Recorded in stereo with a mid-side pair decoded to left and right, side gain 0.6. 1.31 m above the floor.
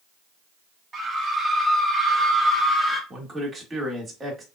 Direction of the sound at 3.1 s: 20° right.